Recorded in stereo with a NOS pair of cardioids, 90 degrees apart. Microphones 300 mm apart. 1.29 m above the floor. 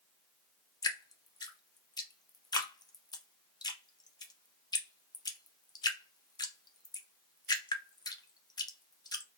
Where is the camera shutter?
No camera shutter in this recording.